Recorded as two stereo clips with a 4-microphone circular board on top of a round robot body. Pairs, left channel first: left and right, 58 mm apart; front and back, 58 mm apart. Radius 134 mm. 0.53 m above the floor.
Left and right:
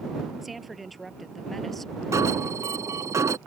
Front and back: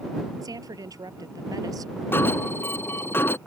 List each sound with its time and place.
0.4 s a woman speaking: 175° right; by 1.9 s 175° left
2.1 s an alarm: 55° right